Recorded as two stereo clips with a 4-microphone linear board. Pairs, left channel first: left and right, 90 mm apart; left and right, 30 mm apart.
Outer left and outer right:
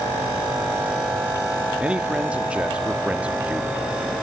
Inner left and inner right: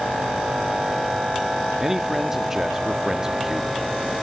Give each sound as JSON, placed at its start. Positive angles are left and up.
{"t": 1.8, "sound": "a man speaking", "side_deg": -10, "distance_m": 1.4}